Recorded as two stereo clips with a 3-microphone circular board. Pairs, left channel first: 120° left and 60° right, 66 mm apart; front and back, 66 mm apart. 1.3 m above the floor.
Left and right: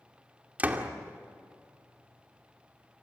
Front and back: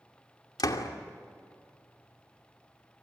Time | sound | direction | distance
0.6 | a door slam | 5° left | 2.5 m